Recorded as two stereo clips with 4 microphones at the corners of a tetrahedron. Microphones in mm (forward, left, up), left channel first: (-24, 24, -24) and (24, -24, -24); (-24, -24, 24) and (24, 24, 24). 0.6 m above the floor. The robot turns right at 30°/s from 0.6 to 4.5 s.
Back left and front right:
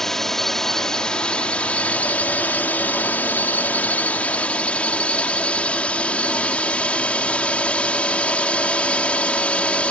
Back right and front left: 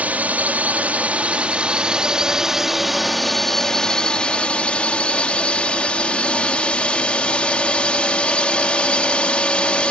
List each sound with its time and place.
0.0 s a drone: 60° left; by 9.9 s 175° left